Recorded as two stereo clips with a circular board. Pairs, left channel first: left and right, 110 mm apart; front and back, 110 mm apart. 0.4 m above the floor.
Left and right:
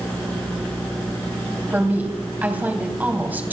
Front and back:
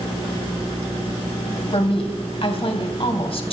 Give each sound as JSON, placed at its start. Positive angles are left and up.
{"t": 1.7, "sound": "a woman speaking", "azimuth_deg": -20, "distance_m": 3.0}